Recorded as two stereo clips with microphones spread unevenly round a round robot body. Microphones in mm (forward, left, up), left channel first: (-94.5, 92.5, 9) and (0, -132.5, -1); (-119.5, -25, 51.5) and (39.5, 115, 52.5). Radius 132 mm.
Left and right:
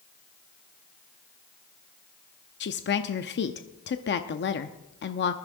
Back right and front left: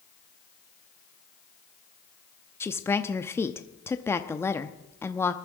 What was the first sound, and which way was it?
A woman speaking, 145° left.